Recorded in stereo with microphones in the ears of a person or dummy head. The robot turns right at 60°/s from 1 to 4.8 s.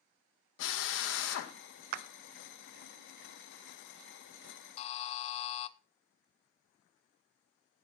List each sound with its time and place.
0.6 s a drill: 85° left, 1.6 m; by 1.5 s 115° left, 1.6 m
1.9 s a clap: 55° right (ahead or behind), 0.6 m; by 2.1 s 60° right (ahead or behind), 0.6 m
4.8 s a buzzer: 35° left (ahead or behind), 0.6 m; by 5.7 s 40° left (ahead or behind), 0.6 m